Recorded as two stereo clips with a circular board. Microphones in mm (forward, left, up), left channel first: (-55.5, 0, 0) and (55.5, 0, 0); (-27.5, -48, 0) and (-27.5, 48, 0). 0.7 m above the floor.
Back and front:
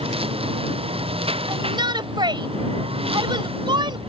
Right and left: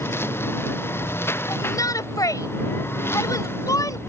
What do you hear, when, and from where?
0.0 s a lawn mower: 25° right
1.5 s a shout: 40° right